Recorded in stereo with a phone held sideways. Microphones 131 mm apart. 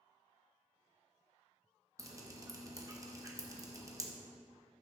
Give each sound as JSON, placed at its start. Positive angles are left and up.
{"t": 2.0, "sound": "dripping", "side_deg": -25, "distance_m": 0.9}